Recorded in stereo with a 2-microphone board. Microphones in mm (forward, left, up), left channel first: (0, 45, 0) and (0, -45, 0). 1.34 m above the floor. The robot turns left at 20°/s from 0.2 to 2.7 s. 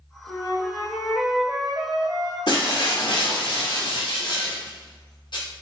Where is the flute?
20° left, 1.3 m; by 2.4 s 25° right, 1.3 m.